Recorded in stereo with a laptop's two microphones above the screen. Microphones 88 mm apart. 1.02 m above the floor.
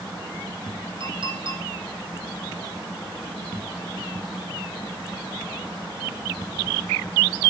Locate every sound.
1.0 s a clink: 65° right (ahead or behind), 3.5 m